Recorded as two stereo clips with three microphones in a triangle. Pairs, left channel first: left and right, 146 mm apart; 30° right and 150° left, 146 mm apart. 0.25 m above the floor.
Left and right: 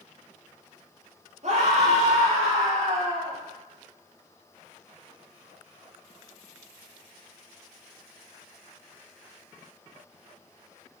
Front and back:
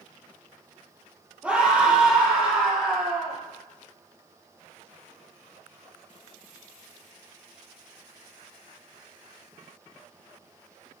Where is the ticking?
No ticking in this recording.